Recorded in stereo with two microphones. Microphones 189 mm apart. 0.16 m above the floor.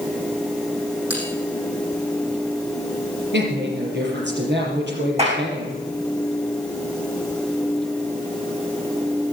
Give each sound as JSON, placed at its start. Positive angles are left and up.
{"t": 1.1, "sound": "a bell", "side_deg": -5, "distance_m": 7.5}
{"t": 3.3, "sound": "a woman speaking", "side_deg": -70, "distance_m": 4.0}
{"t": 5.2, "sound": "a clap", "side_deg": -35, "distance_m": 6.5}